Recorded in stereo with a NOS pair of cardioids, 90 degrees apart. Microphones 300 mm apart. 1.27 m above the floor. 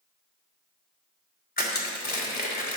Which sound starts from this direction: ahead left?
Crushing, at 1.6 s.